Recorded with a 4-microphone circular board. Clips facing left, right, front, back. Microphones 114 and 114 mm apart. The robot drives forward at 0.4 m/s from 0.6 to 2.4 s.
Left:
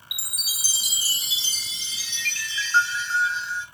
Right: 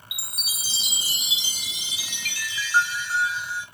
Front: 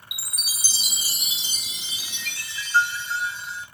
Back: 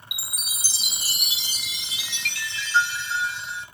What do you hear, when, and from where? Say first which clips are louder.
0.1 s a chime: right 1 dB, even; 155° right, 0.6 m; by 3.6 s 170° right, 1.3 m